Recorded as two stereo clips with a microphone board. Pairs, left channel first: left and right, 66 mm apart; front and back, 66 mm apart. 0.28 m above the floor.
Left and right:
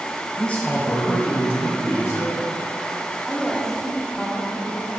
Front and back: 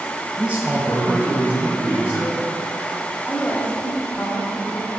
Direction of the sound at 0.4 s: 140° left.